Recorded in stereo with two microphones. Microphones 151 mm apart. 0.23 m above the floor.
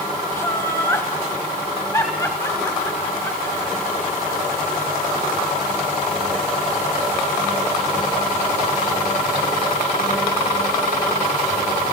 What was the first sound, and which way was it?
Laughter, 20° left (ahead or behind).